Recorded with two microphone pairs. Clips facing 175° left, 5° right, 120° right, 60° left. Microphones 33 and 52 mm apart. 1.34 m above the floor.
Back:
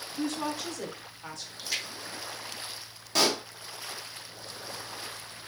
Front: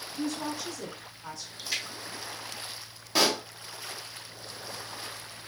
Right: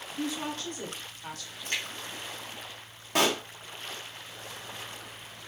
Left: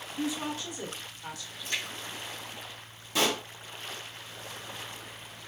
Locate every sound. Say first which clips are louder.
0.2 s a woman speaking: back 1 dB, left 1 dB; 140° left, 0.9 m
1.6 s a splash: even, right 1 dB; 90° right, 1.2 m
3.1 s a pop: front 1 dB, right 2 dB; 85° right, 0.7 m